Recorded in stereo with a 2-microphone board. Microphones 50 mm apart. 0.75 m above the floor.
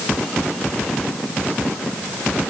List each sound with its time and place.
Only background noise.